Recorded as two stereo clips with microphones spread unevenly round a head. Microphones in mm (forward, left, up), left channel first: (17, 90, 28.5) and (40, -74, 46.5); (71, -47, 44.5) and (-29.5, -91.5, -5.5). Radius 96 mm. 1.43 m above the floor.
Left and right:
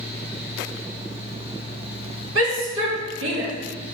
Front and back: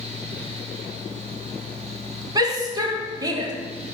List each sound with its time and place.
0.0 s a fan: 145° right, 2.5 m
2.4 s a shout: 95° right, 2.5 m